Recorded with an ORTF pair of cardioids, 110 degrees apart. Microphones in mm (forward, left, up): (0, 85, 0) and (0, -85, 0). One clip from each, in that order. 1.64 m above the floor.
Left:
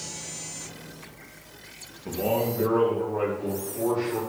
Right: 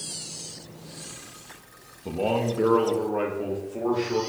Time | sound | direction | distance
2.0 | a man speaking | 15° right | 0.7 m